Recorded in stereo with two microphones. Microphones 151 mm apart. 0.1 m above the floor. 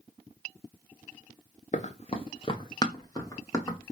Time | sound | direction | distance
1.7 | running footsteps | 50° left (ahead or behind) | 0.6 m